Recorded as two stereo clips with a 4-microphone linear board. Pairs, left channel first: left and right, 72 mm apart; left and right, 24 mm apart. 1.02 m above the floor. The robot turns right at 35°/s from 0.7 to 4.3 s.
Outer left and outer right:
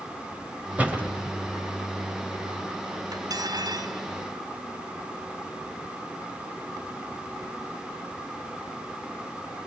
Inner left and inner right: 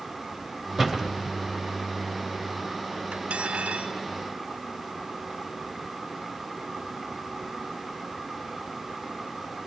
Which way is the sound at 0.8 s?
20° right (ahead or behind).